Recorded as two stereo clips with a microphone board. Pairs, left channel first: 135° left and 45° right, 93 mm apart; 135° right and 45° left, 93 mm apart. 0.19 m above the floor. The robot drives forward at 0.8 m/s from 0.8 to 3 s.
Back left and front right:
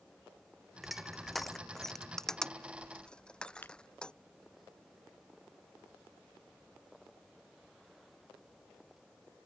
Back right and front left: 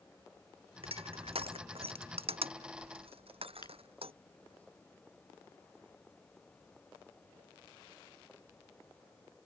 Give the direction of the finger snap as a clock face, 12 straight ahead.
5 o'clock.